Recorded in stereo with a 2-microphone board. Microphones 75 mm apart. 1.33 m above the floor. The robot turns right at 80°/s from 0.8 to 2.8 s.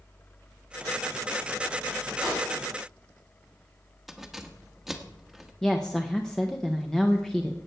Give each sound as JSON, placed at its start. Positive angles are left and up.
{"t": 2.2, "sound": "a pop", "side_deg": -5, "distance_m": 7.5}
{"t": 4.1, "sound": "keys jangling", "side_deg": -5, "distance_m": 1.3}
{"t": 5.6, "sound": "a woman speaking", "side_deg": 5, "distance_m": 0.9}